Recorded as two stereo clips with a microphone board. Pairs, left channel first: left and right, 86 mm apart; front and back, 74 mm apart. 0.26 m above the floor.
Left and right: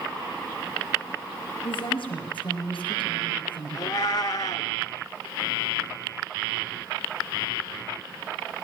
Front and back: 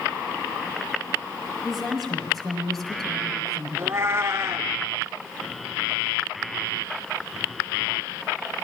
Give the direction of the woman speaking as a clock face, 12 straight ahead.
9 o'clock.